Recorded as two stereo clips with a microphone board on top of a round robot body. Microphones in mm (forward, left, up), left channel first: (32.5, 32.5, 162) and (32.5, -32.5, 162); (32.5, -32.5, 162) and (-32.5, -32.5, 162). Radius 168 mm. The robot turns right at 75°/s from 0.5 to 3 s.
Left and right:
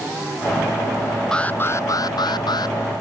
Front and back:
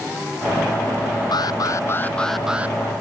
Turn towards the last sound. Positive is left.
turn(degrees=135)